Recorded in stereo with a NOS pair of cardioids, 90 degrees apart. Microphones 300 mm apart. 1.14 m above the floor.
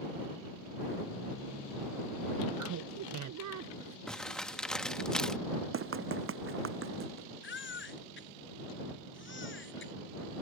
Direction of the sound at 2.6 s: 70° right.